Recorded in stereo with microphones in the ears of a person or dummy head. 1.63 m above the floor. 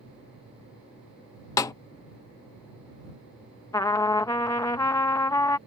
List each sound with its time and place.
1.6 s a snare drum: 20° left (ahead or behind)
3.7 s a trumpet: 20° left (ahead or behind)